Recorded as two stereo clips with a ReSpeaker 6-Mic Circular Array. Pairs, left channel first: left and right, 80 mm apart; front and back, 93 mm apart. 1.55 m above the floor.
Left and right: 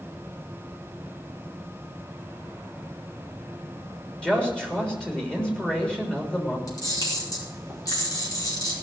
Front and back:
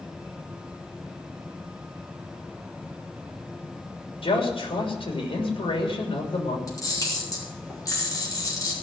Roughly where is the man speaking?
Ahead.